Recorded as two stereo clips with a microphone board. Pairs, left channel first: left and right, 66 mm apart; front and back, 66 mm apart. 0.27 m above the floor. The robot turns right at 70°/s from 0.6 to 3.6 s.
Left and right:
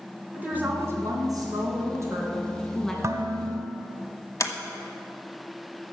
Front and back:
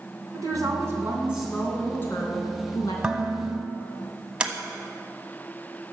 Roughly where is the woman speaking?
Behind right.